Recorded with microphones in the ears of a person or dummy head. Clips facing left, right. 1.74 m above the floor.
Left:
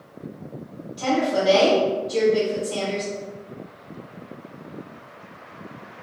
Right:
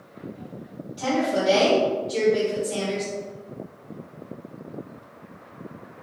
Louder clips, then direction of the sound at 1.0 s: Left 2 dB; 5° right (ahead or behind).